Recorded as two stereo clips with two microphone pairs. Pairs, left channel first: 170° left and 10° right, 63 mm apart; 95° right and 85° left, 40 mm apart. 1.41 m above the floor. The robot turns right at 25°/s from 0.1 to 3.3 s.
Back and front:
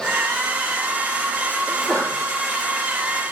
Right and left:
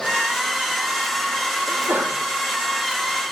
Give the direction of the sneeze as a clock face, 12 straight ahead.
10 o'clock.